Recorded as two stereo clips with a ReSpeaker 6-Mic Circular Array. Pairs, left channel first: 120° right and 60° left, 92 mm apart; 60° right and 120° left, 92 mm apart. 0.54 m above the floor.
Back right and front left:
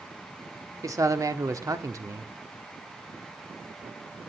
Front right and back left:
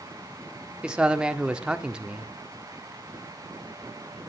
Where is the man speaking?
50° left, 1.2 m.